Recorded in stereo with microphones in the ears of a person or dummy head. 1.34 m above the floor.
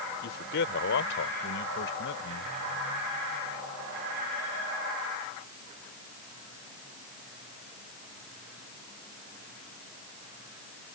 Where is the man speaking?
65° left (ahead or behind); by 2.5 s 75° left (ahead or behind).